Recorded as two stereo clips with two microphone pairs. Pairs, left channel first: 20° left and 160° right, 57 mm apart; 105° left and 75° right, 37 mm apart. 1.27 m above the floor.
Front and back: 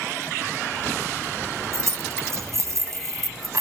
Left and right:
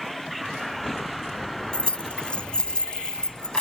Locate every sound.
1.7 s keys jangling: 165° left; by 3.6 s 175° left